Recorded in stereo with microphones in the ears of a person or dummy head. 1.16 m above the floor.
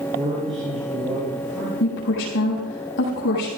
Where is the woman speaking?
65° left (ahead or behind), 7 m.